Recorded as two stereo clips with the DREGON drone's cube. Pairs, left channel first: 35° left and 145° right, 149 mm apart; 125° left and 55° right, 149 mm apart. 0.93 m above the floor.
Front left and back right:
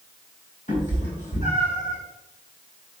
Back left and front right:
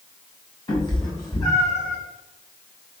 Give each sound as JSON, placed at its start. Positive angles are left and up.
{"t": 0.7, "sound": "a cat meowing", "azimuth_deg": 65, "distance_m": 3.0}